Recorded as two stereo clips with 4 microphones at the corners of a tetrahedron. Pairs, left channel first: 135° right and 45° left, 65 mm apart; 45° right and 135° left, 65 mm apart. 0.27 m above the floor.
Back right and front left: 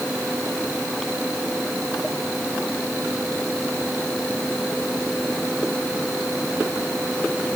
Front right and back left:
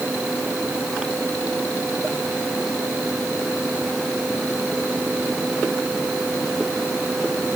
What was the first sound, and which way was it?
Only background noise.